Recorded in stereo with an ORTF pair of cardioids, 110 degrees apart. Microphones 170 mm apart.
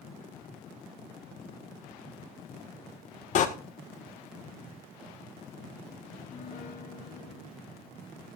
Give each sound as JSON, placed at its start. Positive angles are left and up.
{"t": 3.4, "sound": "a door slam", "azimuth_deg": 50, "distance_m": 1.6}
{"t": 6.1, "sound": "a piano", "azimuth_deg": 50, "distance_m": 2.5}